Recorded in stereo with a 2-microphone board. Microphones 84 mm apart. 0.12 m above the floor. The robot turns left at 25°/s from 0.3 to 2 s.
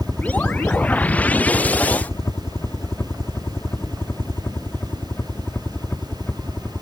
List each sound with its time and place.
0.0 s a helicopter: 5° left (ahead or behind); by 6.8 s 20° left (ahead or behind)